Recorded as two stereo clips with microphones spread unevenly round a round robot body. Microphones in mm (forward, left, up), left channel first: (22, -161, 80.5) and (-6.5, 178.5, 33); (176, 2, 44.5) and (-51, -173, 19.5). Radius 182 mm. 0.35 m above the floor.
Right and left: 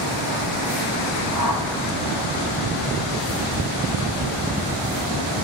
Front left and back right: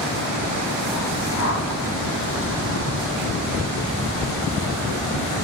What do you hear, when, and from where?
1.3 s a whoosh: 75° left, 3 m